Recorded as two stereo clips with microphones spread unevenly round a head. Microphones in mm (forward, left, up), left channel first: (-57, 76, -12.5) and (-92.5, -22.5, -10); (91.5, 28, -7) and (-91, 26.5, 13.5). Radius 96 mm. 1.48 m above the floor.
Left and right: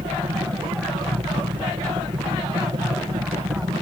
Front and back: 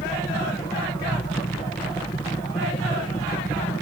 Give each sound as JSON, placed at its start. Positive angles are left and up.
{"t": 0.0, "sound": "a helicopter", "azimuth_deg": -65}